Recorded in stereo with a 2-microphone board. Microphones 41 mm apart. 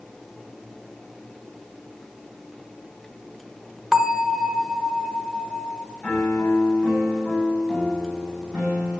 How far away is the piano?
About 8.5 m.